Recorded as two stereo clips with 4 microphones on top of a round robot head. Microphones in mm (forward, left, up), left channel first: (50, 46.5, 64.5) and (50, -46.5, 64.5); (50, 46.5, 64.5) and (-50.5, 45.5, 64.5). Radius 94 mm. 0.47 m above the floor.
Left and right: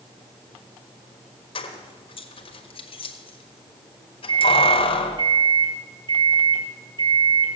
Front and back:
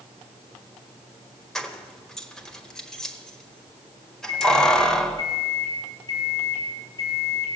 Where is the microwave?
55° right, 3.5 m.